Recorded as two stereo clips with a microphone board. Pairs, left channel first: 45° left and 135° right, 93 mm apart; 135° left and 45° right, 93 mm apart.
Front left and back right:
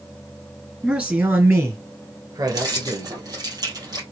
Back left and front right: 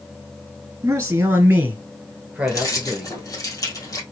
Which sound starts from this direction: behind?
Keys jangling, at 2.5 s.